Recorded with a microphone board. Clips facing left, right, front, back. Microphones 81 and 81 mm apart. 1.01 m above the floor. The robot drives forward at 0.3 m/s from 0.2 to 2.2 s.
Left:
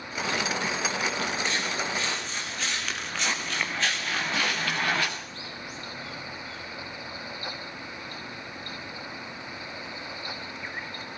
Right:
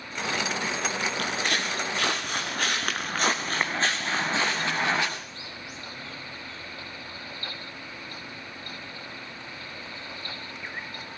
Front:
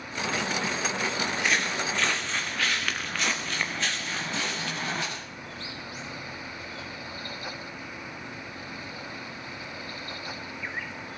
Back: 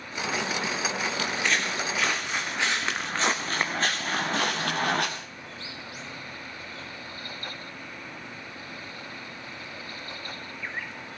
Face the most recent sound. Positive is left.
turn(degrees=-160)